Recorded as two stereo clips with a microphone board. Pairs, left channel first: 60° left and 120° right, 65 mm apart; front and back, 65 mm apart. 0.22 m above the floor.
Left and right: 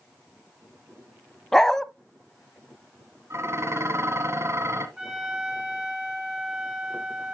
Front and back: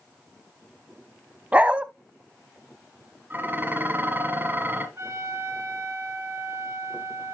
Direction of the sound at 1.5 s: 135° left.